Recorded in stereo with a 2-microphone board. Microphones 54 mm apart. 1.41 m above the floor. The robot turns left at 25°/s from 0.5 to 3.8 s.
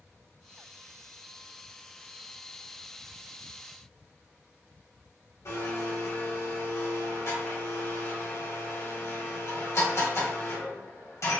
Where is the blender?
65° left (ahead or behind), 1.8 m.